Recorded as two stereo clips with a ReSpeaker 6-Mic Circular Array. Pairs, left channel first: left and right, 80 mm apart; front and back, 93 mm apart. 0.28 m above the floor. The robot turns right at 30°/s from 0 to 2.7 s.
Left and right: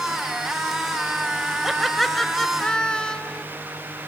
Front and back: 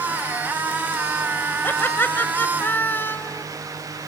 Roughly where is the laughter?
Ahead.